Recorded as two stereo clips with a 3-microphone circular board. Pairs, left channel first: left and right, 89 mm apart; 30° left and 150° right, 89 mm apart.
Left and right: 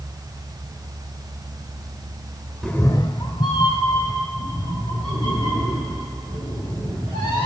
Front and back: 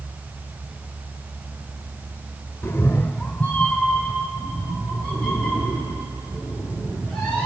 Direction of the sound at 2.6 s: 10° left.